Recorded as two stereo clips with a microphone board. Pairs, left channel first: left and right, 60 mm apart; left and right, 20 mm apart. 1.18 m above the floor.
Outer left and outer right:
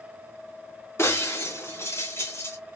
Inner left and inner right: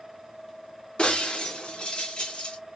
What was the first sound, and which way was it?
Breaking glass, 50° left (ahead or behind).